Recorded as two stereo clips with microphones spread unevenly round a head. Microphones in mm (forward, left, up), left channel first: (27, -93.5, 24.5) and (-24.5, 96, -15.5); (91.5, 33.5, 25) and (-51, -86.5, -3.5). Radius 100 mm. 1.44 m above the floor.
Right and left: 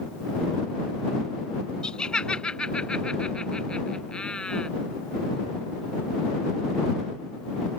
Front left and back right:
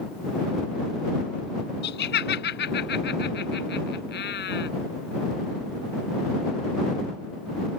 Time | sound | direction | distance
1.8 | laughter | 10° left | ?